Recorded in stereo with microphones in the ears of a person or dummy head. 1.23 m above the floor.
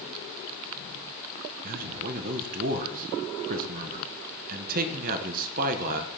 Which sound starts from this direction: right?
A man speaking, at 1.6 s.